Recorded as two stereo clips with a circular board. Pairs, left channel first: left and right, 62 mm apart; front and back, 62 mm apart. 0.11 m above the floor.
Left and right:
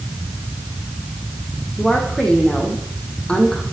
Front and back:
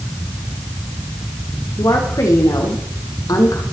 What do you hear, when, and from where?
1.8 s a woman speaking: 15° left, 4 m